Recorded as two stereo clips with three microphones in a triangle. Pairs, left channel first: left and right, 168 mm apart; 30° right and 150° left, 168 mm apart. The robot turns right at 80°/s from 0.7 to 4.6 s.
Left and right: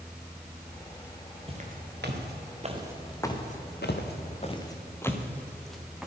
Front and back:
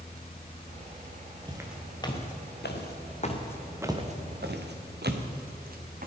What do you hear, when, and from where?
1.5 s footsteps: 145° right, 2.5 m; by 6.1 s 175° right, 1.9 m